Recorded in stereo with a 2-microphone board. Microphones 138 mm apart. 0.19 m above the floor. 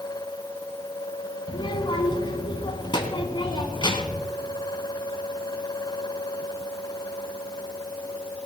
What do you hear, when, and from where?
1.5 s a child speaking: 35° left (ahead or behind), 1.0 m